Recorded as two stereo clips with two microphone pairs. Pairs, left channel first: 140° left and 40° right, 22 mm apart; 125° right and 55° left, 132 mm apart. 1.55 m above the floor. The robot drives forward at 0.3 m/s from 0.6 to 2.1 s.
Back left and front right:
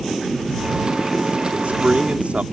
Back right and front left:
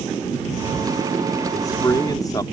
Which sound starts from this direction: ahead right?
A man speaking, at 1.5 s.